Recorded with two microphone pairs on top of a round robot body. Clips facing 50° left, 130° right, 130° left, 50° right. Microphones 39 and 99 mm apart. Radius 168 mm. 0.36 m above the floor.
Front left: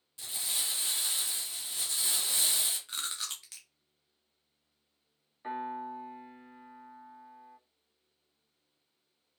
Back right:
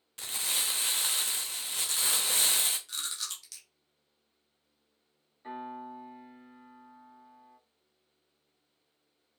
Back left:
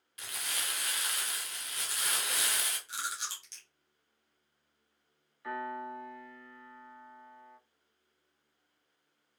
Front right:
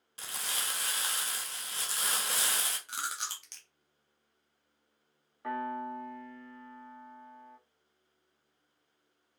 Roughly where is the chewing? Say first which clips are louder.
Even, front right 1 dB; ahead.